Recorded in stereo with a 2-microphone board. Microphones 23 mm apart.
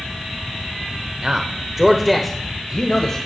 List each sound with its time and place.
1.2 s a man speaking: 35° right (ahead or behind), 1.1 m; by 3.2 s 25° left (ahead or behind), 1.7 m